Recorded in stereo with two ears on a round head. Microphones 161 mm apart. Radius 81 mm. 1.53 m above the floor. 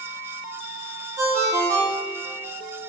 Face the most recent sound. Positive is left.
turn(degrees=-20)  # may be behind; listen again after turning